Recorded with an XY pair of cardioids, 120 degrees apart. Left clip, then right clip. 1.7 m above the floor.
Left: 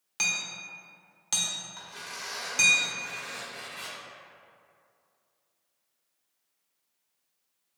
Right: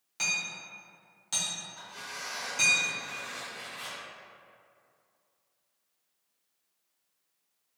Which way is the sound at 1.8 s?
65° left.